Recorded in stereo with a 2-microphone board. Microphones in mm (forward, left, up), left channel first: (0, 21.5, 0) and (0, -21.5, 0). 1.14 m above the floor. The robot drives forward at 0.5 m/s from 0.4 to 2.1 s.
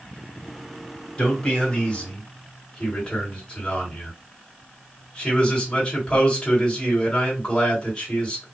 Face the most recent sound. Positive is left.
turn(degrees=20)  # may be behind; listen again after turning